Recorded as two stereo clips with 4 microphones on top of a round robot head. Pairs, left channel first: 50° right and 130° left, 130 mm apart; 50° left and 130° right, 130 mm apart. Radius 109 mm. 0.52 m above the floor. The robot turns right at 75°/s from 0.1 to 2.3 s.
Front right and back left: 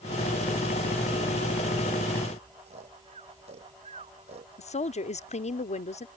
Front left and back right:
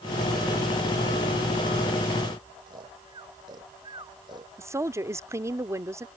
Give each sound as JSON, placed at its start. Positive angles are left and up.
{"t": 2.7, "sound": "snoring", "azimuth_deg": 170}
{"t": 4.6, "sound": "a woman speaking", "azimuth_deg": -65}